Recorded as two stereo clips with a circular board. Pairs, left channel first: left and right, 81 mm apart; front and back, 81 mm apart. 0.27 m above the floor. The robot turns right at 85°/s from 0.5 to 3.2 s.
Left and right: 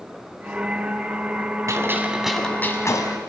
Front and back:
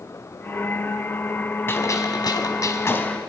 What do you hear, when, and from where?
1.7 s a gunshot: 55° right, 1.9 m; by 3.2 s 75° left, 1.9 m